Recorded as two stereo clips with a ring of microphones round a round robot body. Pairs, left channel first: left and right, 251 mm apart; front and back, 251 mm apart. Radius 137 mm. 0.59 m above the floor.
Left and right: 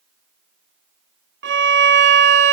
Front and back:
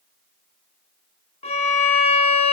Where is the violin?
60° right, 0.7 m.